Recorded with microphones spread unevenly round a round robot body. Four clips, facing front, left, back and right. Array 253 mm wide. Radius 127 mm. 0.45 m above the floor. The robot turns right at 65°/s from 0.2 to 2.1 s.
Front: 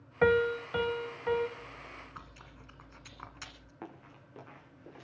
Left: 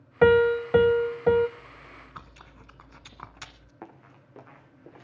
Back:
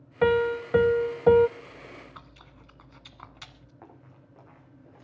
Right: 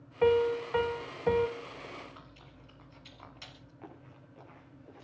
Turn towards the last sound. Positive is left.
turn(degrees=70)